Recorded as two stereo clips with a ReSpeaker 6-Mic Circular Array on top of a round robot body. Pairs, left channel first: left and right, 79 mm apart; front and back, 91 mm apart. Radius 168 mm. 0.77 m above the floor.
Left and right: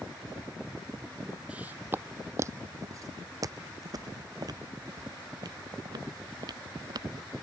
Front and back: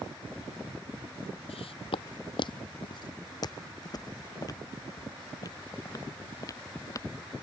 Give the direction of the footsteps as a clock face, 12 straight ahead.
12 o'clock.